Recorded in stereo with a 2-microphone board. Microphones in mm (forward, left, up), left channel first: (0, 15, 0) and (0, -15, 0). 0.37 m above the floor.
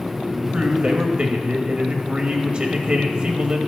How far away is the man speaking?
About 1.5 m.